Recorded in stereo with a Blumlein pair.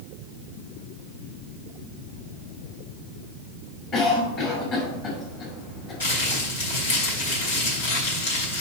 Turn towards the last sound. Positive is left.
turn(degrees=65)